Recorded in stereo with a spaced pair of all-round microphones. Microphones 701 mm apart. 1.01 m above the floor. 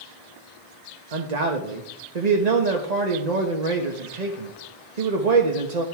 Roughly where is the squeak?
No squeak in this recording.